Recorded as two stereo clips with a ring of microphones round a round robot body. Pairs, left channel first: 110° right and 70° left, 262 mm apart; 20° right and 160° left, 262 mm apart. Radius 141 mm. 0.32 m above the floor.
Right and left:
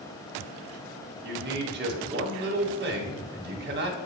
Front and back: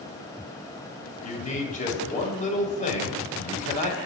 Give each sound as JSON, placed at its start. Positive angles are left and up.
{"t": 1.2, "sound": "a man speaking", "azimuth_deg": 30, "distance_m": 1.4}